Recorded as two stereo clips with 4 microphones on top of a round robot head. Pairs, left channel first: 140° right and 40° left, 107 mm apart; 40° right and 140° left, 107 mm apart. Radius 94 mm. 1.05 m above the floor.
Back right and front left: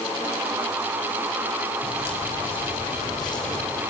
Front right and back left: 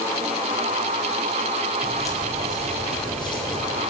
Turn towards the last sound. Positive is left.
turn(degrees=-80)